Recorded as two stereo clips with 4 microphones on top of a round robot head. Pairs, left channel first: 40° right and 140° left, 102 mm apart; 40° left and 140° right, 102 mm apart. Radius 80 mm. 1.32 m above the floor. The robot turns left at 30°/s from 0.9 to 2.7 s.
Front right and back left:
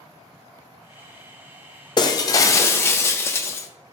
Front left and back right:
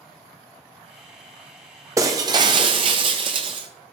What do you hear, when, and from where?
2.0 s breaking glass: 80° right, 0.6 m; by 3.7 s 105° right, 0.6 m